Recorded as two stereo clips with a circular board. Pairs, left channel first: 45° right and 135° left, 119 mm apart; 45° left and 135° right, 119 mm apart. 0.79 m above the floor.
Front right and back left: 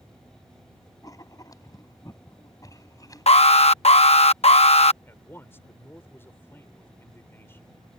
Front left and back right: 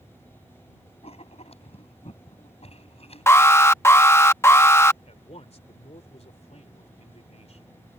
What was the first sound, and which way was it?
Writing, 15° left.